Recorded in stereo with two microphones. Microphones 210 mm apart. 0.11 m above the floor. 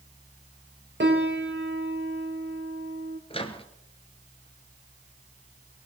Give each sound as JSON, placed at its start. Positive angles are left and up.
{"t": 1.0, "sound": "a piano", "side_deg": -55, "distance_m": 2.0}
{"t": 3.3, "sound": "a microwave", "side_deg": 25, "distance_m": 1.3}